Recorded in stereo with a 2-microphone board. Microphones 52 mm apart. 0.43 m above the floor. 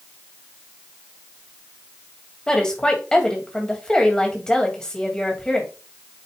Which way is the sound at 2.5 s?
15° left (ahead or behind).